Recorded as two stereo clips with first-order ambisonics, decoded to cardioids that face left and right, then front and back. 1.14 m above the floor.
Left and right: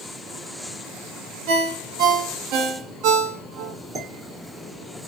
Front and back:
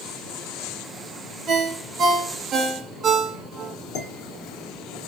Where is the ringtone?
115° right, 1.0 m.